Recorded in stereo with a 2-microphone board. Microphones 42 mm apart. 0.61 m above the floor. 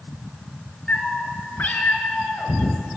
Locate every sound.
0.9 s a cat meowing: 50° left (ahead or behind), 1.0 m